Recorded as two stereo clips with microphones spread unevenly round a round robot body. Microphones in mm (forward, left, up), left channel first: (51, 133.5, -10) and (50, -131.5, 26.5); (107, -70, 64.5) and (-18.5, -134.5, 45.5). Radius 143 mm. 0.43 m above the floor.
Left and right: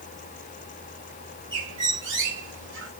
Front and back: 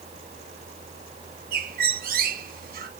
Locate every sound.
1.5 s a bird: 140° right, 1.4 m